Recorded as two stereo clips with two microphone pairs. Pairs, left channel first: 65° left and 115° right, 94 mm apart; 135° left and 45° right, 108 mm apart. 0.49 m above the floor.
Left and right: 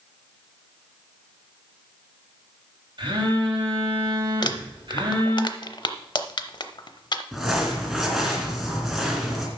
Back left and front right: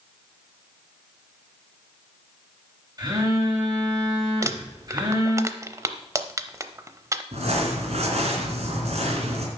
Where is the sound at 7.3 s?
30° right, 2 m.